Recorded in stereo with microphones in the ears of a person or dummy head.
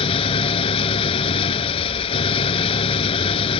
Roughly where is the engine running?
Left.